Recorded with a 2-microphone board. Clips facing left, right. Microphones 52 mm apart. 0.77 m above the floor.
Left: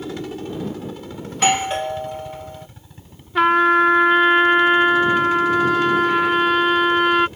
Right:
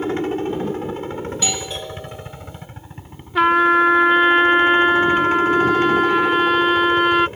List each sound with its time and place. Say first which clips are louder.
0.0 s a helicopter: right 7 dB; 35° right (ahead or behind)
1.3 s a doorbell: left 7 dB; 50° left (ahead or behind)
3.4 s a trumpet: even; centre (ahead or behind)